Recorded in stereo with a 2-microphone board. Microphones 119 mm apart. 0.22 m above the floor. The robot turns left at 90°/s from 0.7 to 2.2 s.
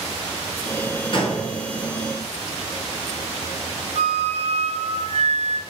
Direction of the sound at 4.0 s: 65° right (ahead or behind).